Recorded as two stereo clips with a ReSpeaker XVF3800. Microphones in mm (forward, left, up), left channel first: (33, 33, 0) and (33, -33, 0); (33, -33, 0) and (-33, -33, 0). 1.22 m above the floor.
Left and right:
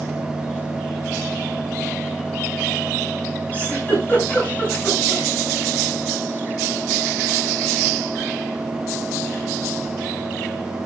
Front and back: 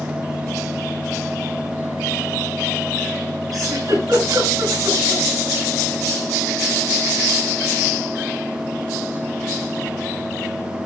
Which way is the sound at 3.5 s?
155° left.